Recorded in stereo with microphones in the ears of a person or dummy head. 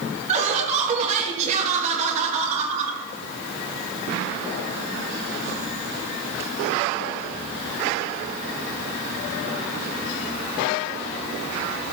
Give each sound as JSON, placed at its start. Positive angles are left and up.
{"t": 0.3, "sound": "laughter", "side_deg": -40, "distance_m": 1.8}